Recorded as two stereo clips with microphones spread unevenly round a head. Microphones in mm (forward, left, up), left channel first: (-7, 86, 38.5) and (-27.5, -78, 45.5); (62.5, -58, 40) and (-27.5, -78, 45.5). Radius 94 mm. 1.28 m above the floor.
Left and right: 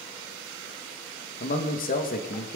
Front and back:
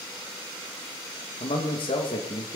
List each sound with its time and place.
1.4 s a man speaking: 45° left, 2 m